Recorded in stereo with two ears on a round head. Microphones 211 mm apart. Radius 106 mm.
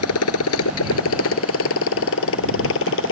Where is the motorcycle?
70° left (ahead or behind); by 3.1 s 55° left (ahead or behind).